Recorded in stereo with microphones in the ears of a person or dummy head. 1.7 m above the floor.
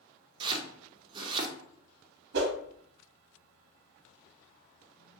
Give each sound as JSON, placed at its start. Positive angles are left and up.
{"t": 0.4, "sound": "chopping", "side_deg": -30, "distance_m": 0.5}
{"t": 2.3, "sound": "a whoosh", "side_deg": -65, "distance_m": 0.7}